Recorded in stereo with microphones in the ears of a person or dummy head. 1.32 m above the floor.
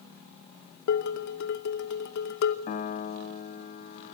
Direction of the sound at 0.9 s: 60° left (ahead or behind).